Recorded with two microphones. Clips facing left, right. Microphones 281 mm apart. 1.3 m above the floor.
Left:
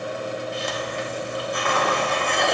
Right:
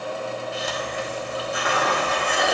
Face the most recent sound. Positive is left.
turn(degrees=-5)  # may be behind; listen again after turning